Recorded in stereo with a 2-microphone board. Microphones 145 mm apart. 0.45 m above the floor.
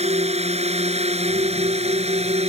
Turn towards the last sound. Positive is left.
turn(degrees=-50)  # may be behind; listen again after turning